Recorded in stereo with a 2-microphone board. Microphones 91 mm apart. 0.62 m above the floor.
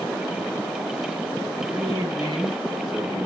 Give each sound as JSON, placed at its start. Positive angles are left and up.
{"t": 1.7, "sound": "a man speaking", "side_deg": -35, "distance_m": 8.0}